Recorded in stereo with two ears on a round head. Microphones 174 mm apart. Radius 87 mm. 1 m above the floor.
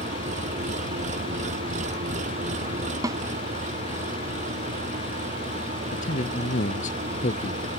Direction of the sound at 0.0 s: 40° right (ahead or behind).